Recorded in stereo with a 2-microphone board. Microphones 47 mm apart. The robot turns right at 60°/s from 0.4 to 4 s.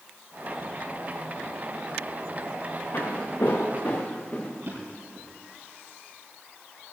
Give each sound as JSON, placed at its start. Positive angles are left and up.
{"t": 2.9, "sound": "footsteps", "side_deg": 50, "distance_m": 3.5}
{"t": 4.6, "sound": "a drawer", "side_deg": -50, "distance_m": 5.5}